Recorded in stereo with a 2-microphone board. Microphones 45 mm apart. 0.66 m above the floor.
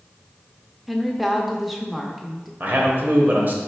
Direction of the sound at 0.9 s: Centre (ahead or behind).